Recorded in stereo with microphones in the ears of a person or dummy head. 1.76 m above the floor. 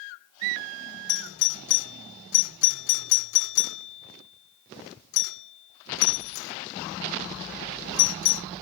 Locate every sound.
1.1 s a doorbell: 65° left (ahead or behind)